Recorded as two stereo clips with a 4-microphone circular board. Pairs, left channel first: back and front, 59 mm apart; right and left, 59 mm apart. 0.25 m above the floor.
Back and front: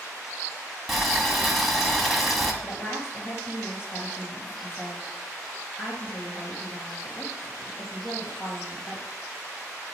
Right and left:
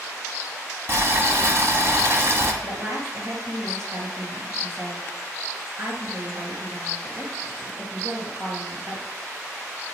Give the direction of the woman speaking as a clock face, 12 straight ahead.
8 o'clock.